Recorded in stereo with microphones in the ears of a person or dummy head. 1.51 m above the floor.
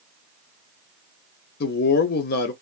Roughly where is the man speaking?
Left.